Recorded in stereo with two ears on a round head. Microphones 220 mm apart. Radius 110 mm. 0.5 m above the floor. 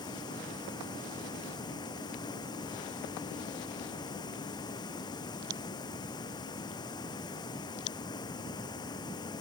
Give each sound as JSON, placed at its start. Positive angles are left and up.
{"t": 0.0, "sound": "running water", "side_deg": 20}